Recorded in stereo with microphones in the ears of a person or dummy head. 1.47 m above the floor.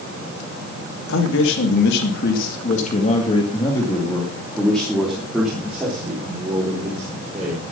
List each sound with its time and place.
1.1 s a man speaking: 85° left, 3 m; by 7.7 s 15° right (ahead or behind), 5.5 m